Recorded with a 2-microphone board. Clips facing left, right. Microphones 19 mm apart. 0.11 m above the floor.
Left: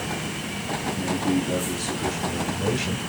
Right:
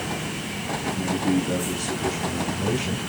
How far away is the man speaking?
About 2 m.